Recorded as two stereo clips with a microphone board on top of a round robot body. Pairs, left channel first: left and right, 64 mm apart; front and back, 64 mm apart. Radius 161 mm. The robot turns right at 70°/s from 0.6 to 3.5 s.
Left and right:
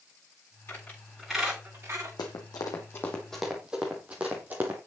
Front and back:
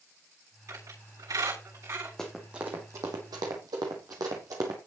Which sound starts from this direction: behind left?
A squeak, at 0.7 s.